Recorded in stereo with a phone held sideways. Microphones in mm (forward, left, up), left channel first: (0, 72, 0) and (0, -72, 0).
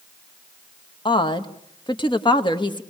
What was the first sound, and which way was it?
A woman speaking, 35° left (ahead or behind).